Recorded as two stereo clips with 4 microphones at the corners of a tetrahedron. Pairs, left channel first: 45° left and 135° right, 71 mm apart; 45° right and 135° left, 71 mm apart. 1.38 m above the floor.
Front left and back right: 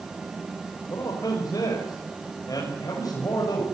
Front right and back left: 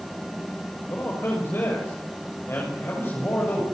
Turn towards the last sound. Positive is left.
turn(degrees=10)